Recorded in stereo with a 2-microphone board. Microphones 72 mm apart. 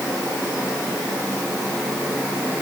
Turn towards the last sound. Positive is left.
No sound to turn to.